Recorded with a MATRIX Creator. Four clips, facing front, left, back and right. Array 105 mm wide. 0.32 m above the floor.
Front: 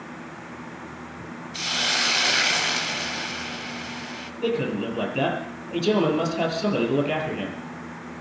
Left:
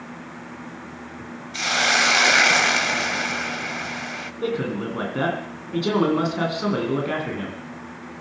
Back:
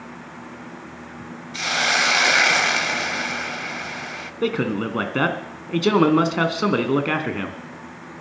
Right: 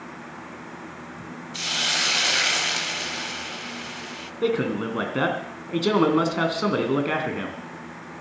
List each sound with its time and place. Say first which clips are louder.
1.5 s a hiss: left 9 dB, back 7 dB; 130° left, 0.7 m
4.4 s a man speaking: right 2 dB, back 2 dB; 170° right, 3 m